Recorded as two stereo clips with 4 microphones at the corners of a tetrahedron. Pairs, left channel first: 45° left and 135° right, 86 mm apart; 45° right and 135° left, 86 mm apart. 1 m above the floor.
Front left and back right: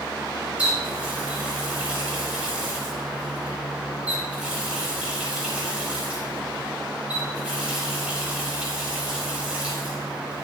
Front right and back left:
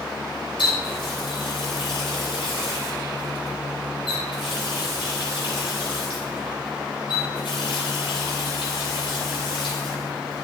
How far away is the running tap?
About 4 m.